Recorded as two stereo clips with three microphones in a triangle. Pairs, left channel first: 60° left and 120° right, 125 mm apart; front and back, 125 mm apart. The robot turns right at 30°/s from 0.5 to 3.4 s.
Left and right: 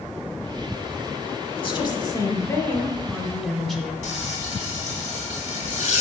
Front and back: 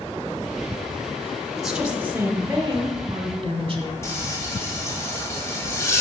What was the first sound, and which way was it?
A woman speaking, 90° left.